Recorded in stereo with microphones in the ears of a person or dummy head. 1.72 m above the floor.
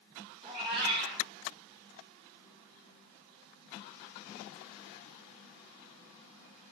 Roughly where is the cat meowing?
Right.